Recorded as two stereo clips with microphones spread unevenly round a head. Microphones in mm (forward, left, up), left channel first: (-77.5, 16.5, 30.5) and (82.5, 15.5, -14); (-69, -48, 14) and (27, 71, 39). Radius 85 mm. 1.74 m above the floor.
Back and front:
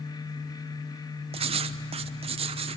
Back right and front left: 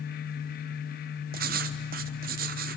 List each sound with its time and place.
1.3 s writing: 60° left, 0.9 m